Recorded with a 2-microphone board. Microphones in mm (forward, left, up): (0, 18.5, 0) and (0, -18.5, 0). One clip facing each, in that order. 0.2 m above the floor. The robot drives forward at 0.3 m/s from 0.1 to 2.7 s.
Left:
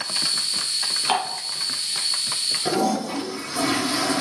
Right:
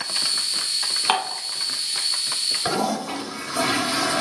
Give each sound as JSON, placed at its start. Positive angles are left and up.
{"t": 1.1, "sound": "dishes clattering", "side_deg": -30, "distance_m": 1.4}
{"t": 2.6, "sound": "a toilet flushing", "side_deg": -55, "distance_m": 1.5}